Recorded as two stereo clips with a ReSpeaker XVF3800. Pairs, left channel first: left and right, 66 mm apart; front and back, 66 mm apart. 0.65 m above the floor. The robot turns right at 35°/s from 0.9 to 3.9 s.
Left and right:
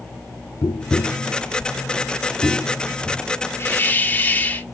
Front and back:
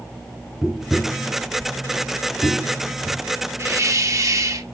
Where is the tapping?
100° left, 0.9 m; by 3.2 s straight behind, 0.9 m.